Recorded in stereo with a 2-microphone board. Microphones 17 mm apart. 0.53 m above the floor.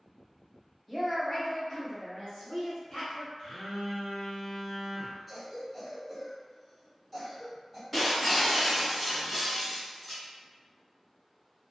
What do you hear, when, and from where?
0.9 s a woman speaking: 10° left (ahead or behind), 1.0 m; by 3.3 s 55° left (ahead or behind), 1.3 m
3.4 s a phone buzzing: 35° left (ahead or behind), 1.1 m
5.3 s a cough: 10° right (ahead or behind), 1.6 m
7.9 s breaking glass: centre (ahead or behind), 1.4 m